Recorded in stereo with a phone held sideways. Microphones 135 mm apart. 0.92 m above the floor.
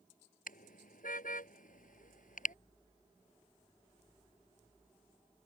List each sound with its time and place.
0.5 s a car horn: 85° left; by 2.5 s 75° left (ahead or behind)